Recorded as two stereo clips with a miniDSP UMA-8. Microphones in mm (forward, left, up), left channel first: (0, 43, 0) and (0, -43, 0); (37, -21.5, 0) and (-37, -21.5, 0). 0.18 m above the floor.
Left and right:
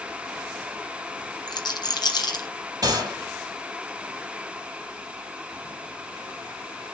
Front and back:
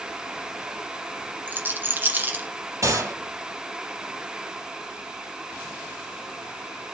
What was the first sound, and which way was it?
A rattle, 120° left.